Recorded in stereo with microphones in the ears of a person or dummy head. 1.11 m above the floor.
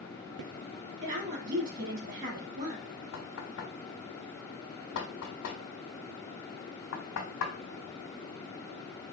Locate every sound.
1.0 s a woman speaking: 50° right (ahead or behind), 3 m
3.1 s knocking: 75° left (ahead or behind), 1.1 m